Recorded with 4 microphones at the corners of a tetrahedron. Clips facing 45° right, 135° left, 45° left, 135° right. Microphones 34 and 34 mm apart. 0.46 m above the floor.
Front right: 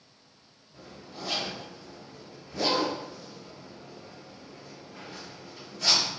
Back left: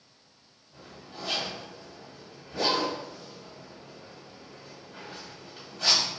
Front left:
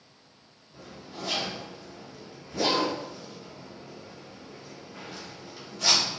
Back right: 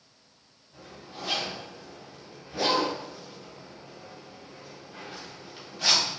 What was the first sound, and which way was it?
A zipper, 165° left.